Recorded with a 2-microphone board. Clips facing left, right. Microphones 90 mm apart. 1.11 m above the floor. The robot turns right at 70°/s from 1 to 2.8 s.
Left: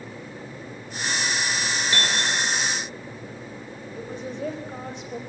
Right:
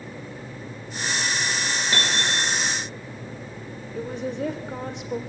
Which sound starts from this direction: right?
A woman speaking, at 3.9 s.